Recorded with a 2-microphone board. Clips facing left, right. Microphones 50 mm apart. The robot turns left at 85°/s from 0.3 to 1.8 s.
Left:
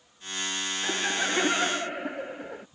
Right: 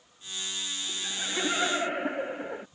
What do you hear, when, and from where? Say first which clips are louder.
0.8 s laughter: left 11 dB; 70° left; by 2.7 s 10° right